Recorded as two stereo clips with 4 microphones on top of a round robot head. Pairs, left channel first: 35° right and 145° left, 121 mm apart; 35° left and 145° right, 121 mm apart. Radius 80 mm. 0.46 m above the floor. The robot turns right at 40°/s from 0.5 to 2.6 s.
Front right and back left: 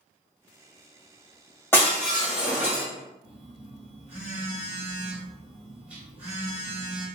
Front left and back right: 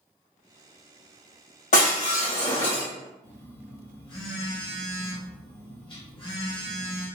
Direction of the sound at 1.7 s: 40° left.